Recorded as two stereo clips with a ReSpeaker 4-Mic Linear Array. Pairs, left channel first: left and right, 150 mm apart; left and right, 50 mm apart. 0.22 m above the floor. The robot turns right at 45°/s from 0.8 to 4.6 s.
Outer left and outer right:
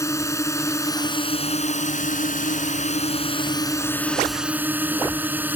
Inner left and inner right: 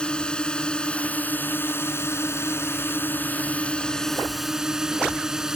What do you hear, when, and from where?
0.0 s a drone: 20° left; by 5.6 s 165° right